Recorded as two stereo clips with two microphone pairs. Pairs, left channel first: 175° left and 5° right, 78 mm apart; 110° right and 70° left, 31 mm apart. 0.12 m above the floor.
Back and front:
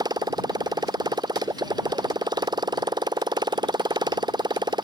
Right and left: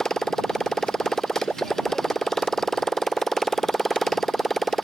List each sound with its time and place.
0.0 s a motorcycle: 30° right; by 4.8 s 25° right